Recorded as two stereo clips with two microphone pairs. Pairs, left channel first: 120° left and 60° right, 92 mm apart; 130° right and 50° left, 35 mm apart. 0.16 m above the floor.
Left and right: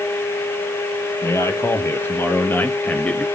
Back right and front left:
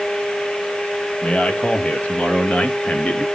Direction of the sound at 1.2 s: Straight behind.